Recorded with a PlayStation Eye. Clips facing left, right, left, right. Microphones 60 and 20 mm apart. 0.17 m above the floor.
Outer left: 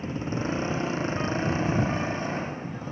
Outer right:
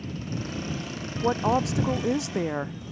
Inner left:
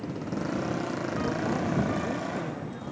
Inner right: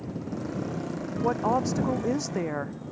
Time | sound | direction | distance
0.0 | a motorcycle | 30° left (ahead or behind) | ?
1.2 | a woman speaking | 80° right | ?